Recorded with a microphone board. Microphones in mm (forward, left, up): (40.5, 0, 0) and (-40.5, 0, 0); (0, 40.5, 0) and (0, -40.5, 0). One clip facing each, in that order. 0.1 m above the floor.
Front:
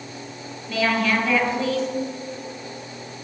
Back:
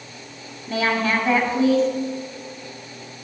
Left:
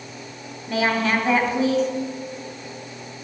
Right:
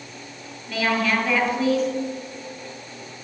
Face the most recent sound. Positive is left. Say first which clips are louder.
# even, left 1 dB
turn(degrees=150)